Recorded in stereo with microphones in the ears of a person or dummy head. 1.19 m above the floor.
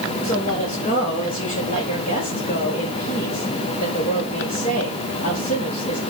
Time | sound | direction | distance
0.2 | a woman speaking | 40° left (ahead or behind) | 5.5 m